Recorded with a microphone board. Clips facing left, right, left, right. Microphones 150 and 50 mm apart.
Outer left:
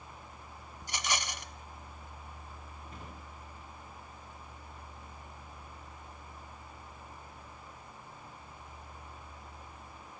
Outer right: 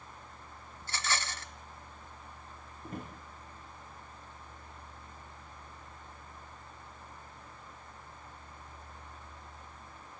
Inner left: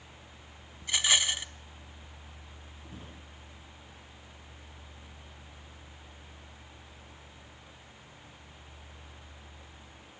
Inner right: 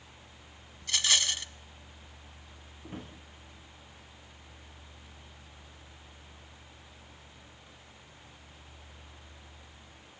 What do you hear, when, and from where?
0.8 s a rattle: 15° left (ahead or behind), 0.9 m
2.8 s a drawer: 50° right (ahead or behind), 10 m